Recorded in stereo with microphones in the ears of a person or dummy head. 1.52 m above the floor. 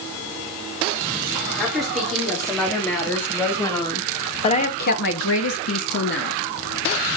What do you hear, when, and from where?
1.6 s a woman speaking: centre (ahead or behind), 4.5 m; by 6.4 s 65° left (ahead or behind), 1.8 m